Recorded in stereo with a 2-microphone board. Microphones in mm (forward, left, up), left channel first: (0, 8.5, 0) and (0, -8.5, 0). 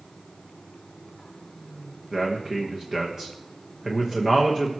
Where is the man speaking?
35° right (ahead or behind), 1.1 m.